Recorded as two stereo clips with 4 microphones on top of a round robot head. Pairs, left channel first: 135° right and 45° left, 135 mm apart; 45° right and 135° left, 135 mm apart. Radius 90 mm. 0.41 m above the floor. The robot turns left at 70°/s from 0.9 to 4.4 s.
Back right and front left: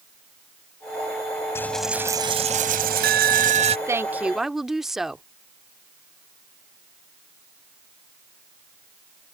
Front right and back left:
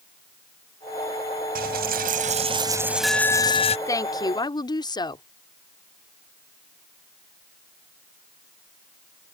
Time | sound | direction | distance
1.6 | a dropped coin | 150° left | ?
3.9 | a woman speaking | 5° right | ?